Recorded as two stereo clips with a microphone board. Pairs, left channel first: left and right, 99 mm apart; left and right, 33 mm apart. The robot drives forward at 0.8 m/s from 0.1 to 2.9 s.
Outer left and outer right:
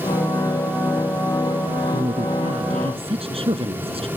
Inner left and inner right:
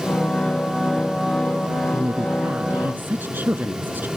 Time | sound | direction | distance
1.9 | a woman speaking | 80° right | ?